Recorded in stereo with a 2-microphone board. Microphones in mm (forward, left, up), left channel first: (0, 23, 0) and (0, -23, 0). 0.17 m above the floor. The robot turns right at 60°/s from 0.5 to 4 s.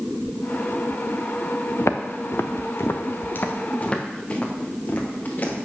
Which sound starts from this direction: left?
Footsteps, at 1.8 s.